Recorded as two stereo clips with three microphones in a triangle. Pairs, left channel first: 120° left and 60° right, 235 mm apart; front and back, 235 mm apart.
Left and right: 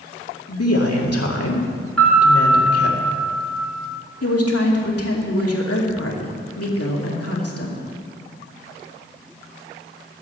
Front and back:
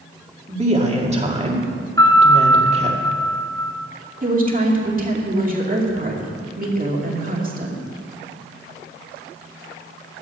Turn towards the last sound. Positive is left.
turn(degrees=125)